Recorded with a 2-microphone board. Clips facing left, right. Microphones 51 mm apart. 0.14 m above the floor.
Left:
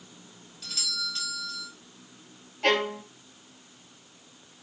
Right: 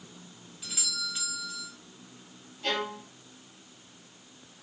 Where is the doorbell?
10° right (ahead or behind), 3.5 m.